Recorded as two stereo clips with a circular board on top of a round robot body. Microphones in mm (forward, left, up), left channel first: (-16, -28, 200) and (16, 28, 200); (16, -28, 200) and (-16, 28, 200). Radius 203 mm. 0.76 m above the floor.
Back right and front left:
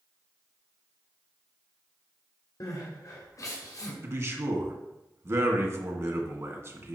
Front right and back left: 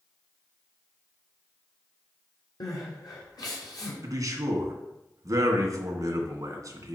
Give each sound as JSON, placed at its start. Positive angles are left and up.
{"t": 2.6, "sound": "crying", "azimuth_deg": -80, "distance_m": 1.2}
{"t": 4.0, "sound": "a man speaking", "azimuth_deg": 95, "distance_m": 2.0}